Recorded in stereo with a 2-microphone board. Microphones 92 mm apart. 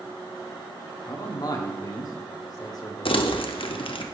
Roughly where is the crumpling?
Left.